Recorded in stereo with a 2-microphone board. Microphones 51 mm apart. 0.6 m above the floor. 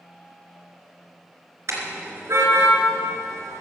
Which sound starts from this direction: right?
A car horn, at 1.7 s.